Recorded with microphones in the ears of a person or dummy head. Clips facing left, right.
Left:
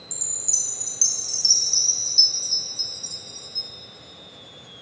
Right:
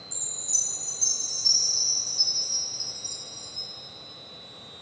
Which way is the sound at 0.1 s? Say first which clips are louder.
Left 2 dB; 85° left.